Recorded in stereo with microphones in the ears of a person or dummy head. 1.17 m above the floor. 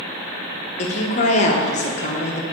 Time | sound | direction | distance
0.8 | a woman speaking | 45° left (ahead or behind) | 0.9 m